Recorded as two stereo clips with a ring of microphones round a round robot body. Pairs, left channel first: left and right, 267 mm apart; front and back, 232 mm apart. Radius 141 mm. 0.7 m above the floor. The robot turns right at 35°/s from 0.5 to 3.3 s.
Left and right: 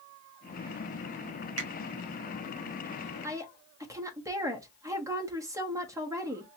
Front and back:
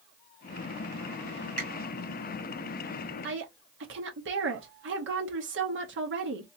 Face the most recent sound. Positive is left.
turn(degrees=-165)